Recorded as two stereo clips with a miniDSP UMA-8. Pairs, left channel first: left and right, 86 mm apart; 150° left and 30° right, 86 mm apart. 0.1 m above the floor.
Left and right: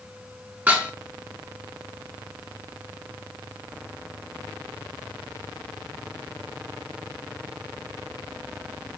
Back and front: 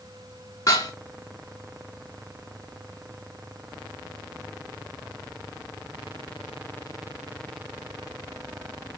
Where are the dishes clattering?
155° right, 8 m.